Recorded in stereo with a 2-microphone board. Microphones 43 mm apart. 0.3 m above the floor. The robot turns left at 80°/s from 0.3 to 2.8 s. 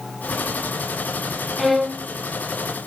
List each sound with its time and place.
1.6 s a violin: straight ahead, 0.6 m; by 2.1 s 40° right, 0.6 m